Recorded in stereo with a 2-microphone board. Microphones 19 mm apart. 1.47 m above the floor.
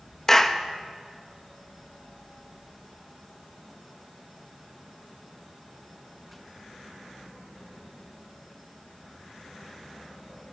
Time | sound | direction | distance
0.3 | a clap | 20° left (ahead or behind) | 1.3 m